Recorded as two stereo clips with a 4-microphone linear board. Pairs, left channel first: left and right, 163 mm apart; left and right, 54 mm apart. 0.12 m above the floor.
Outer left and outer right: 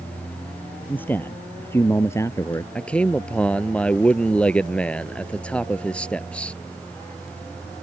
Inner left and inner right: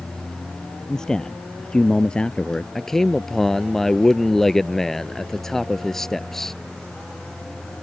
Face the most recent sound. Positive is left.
turn(degrees=5)  # may be behind; listen again after turning